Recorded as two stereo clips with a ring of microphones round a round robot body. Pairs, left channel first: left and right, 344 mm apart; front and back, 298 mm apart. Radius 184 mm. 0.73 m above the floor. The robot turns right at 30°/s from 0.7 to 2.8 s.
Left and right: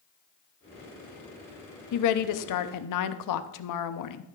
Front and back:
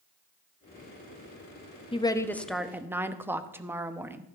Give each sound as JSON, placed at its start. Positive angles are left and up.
{"t": 1.9, "sound": "a woman speaking", "azimuth_deg": 70, "distance_m": 0.8}